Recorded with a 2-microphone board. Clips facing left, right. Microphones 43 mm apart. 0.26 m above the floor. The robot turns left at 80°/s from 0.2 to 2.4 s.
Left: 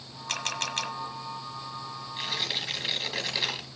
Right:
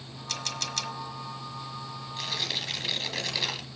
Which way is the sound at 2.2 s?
20° left (ahead or behind).